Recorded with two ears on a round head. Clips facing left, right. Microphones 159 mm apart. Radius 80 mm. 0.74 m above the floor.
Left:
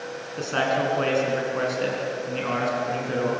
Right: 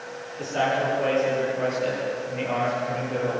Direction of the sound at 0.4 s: 80° left.